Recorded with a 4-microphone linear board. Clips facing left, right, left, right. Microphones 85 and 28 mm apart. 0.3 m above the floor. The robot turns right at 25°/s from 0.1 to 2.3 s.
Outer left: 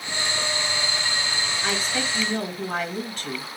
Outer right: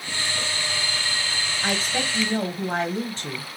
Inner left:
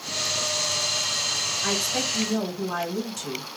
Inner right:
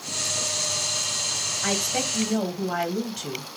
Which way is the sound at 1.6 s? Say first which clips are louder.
Outer right 2 dB, inner right 2 dB; 40° right (ahead or behind).